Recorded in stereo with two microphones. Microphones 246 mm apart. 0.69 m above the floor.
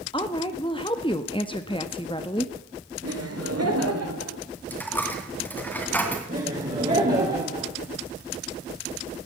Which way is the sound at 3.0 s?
75° right (ahead or behind).